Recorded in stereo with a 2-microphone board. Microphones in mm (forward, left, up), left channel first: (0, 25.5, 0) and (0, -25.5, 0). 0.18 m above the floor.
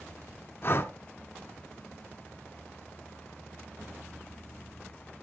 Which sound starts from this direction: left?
Breathing, at 0.6 s.